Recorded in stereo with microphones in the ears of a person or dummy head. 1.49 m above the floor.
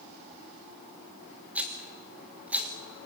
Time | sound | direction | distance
1.6 | a rattle | 5° right (ahead or behind) | 3.5 m